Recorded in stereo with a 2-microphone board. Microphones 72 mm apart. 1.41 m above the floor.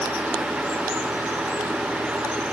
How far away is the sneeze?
No sneeze in this recording.